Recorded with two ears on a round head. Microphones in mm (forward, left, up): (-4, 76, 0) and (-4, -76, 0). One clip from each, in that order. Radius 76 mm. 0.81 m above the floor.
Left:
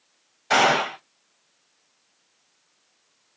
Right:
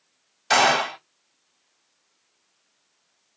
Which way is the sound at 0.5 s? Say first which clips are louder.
Even; 70° right (ahead or behind).